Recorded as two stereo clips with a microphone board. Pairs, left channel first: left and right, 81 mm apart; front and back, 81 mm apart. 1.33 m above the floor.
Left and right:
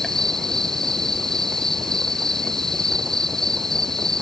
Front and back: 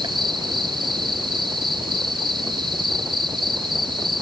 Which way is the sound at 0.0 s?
175° left.